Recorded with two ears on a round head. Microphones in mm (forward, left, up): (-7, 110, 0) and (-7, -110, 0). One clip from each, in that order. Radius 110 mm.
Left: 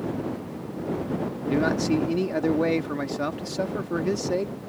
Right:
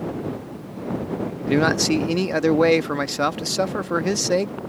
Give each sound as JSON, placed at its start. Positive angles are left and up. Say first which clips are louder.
{"t": 1.5, "sound": "a man speaking", "louder": "right 5 dB", "side_deg": -40}